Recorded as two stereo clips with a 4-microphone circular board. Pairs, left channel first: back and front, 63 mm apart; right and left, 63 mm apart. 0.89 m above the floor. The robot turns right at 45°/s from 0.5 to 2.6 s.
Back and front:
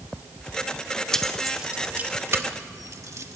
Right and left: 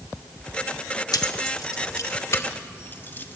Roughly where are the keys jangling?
Right.